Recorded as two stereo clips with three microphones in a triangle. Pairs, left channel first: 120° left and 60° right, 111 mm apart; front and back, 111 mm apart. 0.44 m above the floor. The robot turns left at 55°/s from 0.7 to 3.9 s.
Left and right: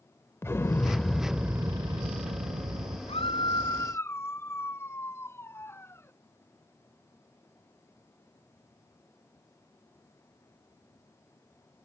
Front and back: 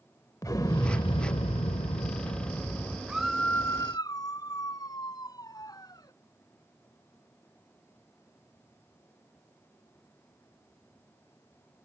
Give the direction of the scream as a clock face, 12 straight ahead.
9 o'clock.